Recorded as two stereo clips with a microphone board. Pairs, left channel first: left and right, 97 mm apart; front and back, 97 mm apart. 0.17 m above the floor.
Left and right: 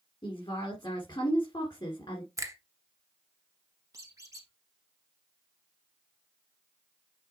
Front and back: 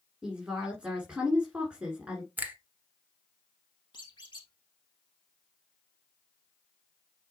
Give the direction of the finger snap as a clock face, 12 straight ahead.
4 o'clock.